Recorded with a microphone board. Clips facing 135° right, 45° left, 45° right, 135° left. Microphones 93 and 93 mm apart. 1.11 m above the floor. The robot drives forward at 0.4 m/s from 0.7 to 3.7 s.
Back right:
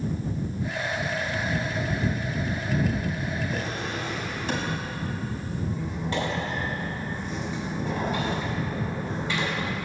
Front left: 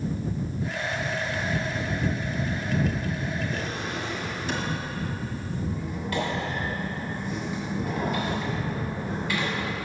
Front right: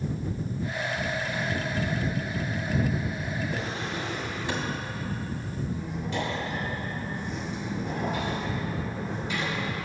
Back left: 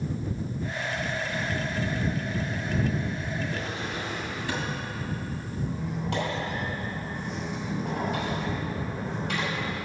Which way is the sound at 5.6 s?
160° left.